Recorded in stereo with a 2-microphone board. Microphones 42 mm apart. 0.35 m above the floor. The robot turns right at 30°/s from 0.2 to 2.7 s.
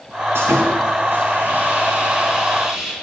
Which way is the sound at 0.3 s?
85° right.